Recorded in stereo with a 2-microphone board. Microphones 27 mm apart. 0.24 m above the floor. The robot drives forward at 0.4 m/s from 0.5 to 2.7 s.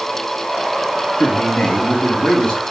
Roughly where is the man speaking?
Left.